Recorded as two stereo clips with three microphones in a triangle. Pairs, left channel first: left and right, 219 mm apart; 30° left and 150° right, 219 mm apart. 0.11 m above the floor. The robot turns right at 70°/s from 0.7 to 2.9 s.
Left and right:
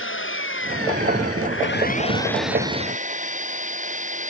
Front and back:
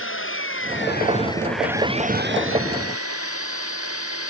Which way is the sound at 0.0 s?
60° left.